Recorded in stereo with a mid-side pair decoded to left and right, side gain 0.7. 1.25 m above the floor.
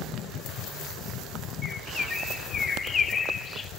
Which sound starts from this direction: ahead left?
A bird, at 1.6 s.